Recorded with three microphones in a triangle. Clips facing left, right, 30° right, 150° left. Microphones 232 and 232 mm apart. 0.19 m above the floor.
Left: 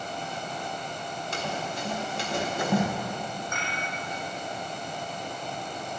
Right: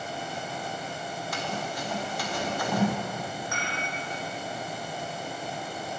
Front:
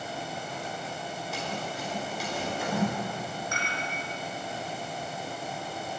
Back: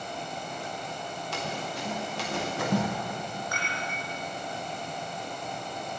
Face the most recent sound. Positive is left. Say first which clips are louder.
# right 1 dB, front 1 dB
turn(degrees=-95)